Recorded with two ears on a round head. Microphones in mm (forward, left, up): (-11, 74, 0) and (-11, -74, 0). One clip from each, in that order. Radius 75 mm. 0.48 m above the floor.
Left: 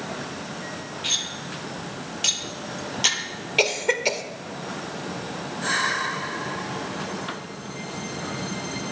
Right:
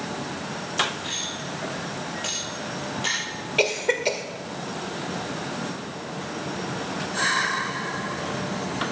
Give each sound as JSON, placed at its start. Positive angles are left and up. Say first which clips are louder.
{"t": 1.0, "sound": "cutlery clinking", "louder": "left 3 dB", "side_deg": 80, "distance_m": 6.0}
{"t": 3.6, "sound": "a cough", "louder": "left 1 dB", "side_deg": 25, "distance_m": 1.7}